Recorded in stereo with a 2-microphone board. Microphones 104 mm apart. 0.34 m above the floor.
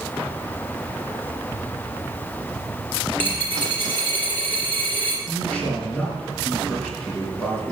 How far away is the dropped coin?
About 4.5 m.